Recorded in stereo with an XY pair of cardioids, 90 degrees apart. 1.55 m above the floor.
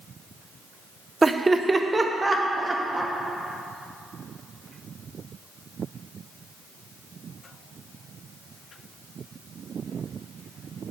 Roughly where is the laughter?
Ahead right.